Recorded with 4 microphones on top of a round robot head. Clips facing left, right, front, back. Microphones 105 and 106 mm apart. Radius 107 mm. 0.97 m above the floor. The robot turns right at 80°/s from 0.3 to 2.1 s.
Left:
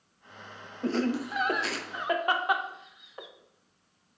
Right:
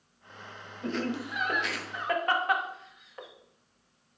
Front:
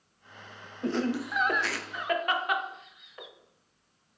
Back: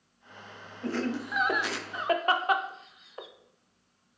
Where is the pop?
No pop in this recording.